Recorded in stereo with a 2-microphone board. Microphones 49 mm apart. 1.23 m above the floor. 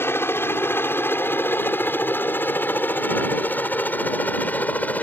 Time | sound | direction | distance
0.0 | a helicopter | 55° left (ahead or behind) | ?